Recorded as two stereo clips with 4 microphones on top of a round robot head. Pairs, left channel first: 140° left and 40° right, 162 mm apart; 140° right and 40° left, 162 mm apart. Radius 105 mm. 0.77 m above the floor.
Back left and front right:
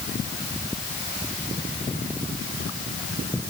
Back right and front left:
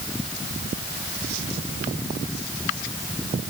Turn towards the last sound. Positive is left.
No sound to turn to.